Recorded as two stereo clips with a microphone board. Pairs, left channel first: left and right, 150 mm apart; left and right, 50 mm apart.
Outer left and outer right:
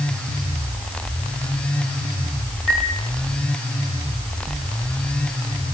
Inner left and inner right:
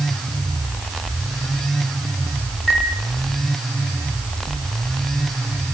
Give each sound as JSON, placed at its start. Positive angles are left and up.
{"t": 2.7, "sound": "a chime", "side_deg": 45, "distance_m": 9.0}